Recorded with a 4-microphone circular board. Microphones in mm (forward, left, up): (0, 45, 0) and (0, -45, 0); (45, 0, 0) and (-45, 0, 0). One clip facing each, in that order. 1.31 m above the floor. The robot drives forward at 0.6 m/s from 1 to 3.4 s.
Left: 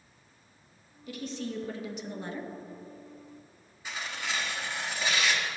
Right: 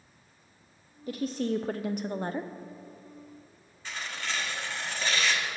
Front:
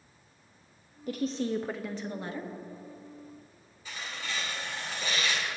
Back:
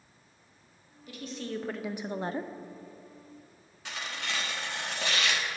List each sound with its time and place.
1.1 s a woman speaking: 40° right, 0.6 m; by 2.5 s 140° right, 0.6 m
3.9 s tearing paper: 170° left, 1.4 m